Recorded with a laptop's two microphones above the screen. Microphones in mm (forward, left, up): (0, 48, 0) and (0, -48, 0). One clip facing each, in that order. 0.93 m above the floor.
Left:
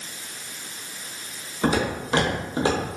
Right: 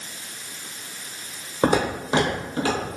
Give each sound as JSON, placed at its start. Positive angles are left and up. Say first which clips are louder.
{"t": 1.6, "sound": "footsteps", "louder": "right 2 dB", "side_deg": -50, "distance_m": 1.4}